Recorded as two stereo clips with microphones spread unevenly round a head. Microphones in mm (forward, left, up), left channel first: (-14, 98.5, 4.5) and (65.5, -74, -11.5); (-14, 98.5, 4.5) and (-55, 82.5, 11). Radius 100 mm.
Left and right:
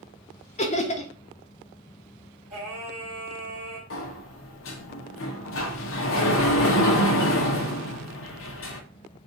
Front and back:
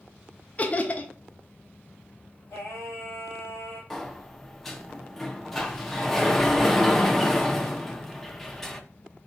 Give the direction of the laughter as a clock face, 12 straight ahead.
10 o'clock.